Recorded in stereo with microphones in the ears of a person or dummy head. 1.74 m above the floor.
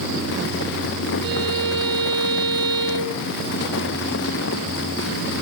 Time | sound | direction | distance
1.2 | a violin | 60° right (ahead or behind) | 8 m